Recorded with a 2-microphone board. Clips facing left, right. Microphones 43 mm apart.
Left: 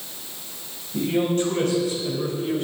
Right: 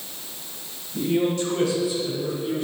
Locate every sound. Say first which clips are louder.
0.9 s a man speaking: even; 50° left (ahead or behind), 4 m; by 2.6 s 65° left (ahead or behind), 2.5 m